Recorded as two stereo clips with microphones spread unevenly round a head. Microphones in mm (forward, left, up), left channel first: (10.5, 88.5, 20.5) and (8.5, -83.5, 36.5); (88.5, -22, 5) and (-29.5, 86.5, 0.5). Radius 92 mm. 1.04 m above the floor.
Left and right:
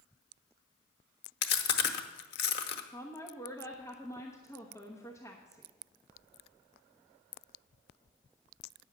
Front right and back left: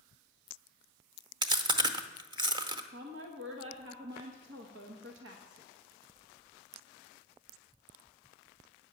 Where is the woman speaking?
165° left, 1.0 m.